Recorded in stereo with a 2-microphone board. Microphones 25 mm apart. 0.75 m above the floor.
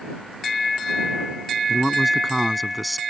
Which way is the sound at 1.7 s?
10° left (ahead or behind).